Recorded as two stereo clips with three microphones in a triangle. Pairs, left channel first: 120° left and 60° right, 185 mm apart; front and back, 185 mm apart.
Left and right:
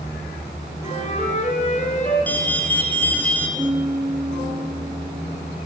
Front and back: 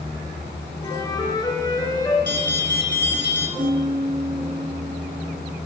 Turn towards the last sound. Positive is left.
turn(degrees=-130)